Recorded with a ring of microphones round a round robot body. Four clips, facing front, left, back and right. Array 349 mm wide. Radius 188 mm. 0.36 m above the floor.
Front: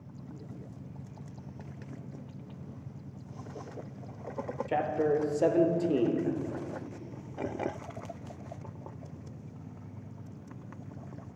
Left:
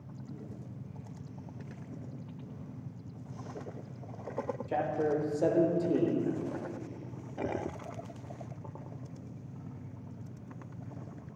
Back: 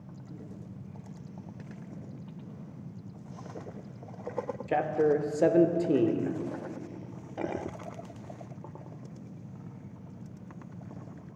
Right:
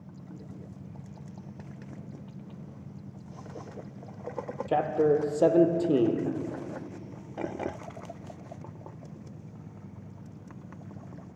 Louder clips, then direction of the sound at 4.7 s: Right 7 dB, back 2 dB; 120° right.